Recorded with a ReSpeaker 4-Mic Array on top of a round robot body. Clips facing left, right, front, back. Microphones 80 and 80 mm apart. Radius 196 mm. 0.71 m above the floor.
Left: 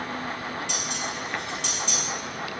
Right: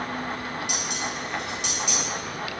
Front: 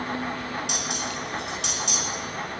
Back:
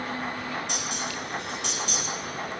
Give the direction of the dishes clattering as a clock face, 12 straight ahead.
12 o'clock.